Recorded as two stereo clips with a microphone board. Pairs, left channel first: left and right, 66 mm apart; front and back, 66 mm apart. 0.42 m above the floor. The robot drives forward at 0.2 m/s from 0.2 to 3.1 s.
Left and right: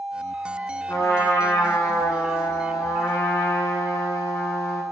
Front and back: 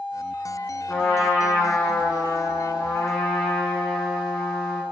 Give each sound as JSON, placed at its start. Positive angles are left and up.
{"t": 0.9, "sound": "a trumpet", "azimuth_deg": 75, "distance_m": 2.5}